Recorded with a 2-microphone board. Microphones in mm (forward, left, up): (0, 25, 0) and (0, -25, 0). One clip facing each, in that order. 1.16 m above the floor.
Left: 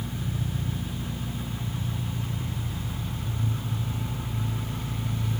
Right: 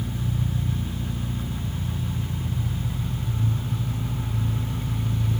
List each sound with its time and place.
0.0 s an engine running: 5° left (ahead or behind), 3.5 m